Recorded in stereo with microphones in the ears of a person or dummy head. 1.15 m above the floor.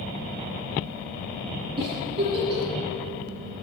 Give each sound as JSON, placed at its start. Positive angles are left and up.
{"t": 1.8, "sound": "a giggle", "side_deg": -20, "distance_m": 8.0}